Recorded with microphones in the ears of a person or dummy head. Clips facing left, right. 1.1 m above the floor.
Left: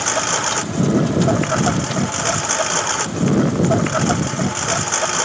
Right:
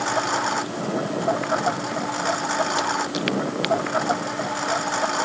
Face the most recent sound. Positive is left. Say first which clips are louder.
# left 2 dB
turn(degrees=40)  # may be behind; listen again after turning